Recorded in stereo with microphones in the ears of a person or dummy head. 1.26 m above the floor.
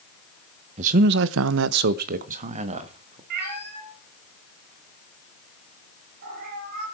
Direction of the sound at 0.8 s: 35° right (ahead or behind).